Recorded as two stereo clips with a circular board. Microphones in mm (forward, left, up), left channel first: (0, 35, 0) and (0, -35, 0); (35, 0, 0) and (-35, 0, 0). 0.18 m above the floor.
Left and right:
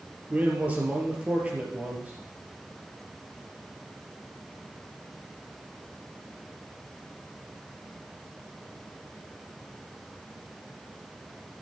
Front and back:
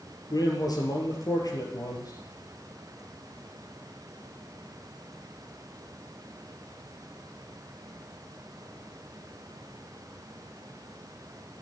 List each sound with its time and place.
0.3 s a man speaking: 20° right, 3.5 m